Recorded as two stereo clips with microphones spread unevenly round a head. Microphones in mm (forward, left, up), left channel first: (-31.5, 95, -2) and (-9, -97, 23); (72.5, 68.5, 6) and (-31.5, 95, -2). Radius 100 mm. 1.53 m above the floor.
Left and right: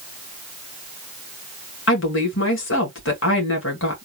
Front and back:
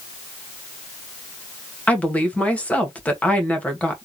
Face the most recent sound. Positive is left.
turn(degrees=65)